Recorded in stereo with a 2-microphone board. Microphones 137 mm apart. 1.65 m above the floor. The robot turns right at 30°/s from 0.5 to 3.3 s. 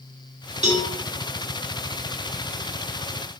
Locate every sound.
0.6 s a cowbell: 50° right (ahead or behind), 0.7 m; by 0.9 s 45° right (ahead or behind), 0.7 m